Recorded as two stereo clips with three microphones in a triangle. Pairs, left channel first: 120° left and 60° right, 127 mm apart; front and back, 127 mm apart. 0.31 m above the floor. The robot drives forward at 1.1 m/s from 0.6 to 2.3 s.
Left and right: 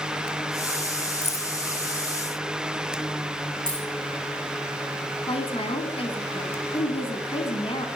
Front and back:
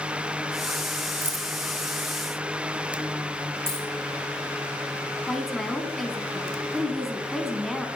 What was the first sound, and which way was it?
Keys jangling, 100° left.